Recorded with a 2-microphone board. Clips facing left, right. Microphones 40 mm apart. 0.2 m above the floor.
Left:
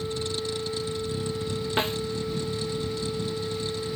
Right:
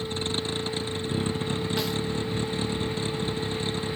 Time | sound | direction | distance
0.0 | a vehicle | 40° right (ahead or behind) | ?
1.8 | a snare drum | 40° left (ahead or behind) | ?